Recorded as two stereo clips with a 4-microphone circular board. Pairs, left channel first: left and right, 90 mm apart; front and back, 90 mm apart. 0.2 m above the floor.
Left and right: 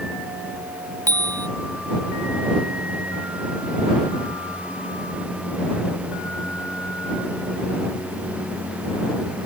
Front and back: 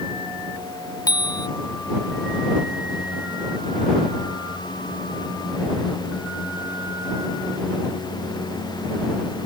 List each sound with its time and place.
1.1 s a bicycle bell: 45° right